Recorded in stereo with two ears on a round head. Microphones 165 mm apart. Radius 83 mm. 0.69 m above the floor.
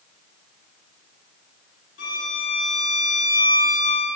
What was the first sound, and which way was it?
A violin, 75° left (ahead or behind).